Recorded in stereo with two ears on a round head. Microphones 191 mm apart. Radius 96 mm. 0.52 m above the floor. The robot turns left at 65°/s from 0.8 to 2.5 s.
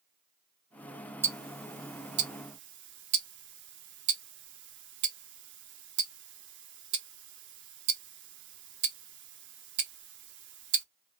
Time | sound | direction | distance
1.2 | ticking | 10° right (ahead or behind) | 0.8 m